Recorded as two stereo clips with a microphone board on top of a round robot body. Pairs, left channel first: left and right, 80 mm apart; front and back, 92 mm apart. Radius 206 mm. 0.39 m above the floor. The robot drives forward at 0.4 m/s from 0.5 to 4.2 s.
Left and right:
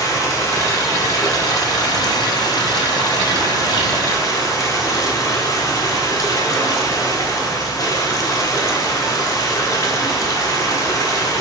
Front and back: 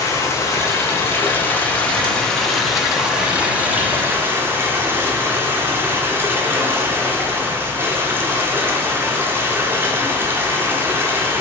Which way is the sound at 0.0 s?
50° left.